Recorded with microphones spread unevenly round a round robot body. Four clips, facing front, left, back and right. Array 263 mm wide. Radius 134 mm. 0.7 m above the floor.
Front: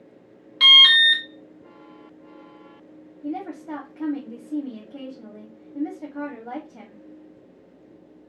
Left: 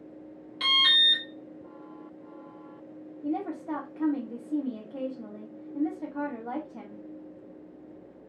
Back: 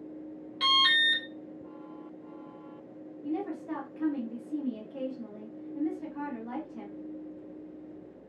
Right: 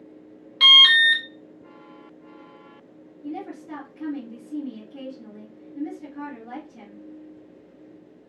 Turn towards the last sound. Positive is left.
turn(degrees=45)